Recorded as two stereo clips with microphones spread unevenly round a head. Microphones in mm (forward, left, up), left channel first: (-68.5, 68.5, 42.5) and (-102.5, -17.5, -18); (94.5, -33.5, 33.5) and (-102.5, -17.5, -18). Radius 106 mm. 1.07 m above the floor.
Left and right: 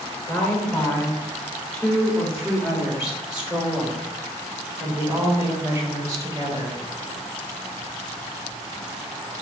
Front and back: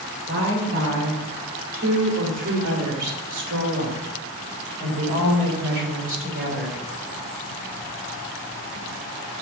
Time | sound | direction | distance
0.3 | a woman speaking | 140° left | 3.5 m